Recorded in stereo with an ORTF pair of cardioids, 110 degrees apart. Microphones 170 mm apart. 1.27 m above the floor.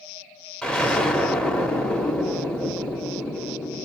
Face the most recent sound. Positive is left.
turn(degrees=5)